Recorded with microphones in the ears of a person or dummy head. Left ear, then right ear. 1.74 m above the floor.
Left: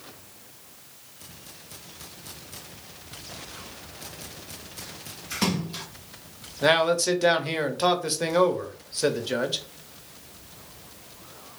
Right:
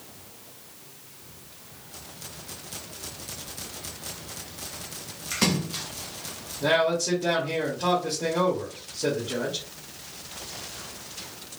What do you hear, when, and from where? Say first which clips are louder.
5.3 s a splash: right 2 dB; 5° right (ahead or behind), 0.8 m
6.6 s a man speaking: left 2 dB; 65° left (ahead or behind), 0.9 m